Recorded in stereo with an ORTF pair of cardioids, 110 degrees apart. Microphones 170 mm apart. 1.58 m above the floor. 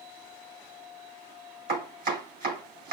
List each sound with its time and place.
1.7 s chopping: 70° right, 4.5 m